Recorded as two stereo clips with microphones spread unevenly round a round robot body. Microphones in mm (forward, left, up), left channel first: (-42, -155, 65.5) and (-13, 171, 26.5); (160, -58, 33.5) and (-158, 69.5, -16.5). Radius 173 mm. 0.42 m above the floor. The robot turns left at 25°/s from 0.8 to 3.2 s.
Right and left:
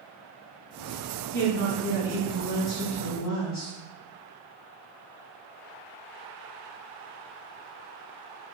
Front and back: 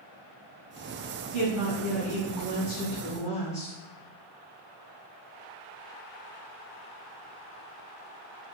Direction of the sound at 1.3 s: 50° right.